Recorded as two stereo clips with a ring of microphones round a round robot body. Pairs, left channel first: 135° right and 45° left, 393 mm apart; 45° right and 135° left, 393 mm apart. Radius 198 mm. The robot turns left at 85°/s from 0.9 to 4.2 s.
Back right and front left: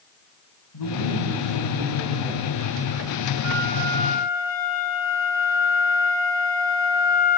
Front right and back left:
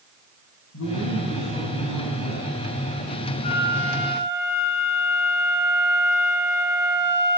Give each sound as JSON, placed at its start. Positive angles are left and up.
{"t": 0.7, "sound": "a man speaking", "azimuth_deg": -100, "distance_m": 6.0}
{"t": 3.4, "sound": "a flute", "azimuth_deg": 0, "distance_m": 9.0}